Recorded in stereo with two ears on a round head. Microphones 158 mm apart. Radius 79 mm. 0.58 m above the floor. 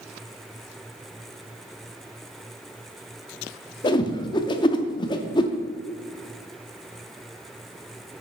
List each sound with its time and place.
3.8 s a whoosh: 25° left (ahead or behind), 0.5 m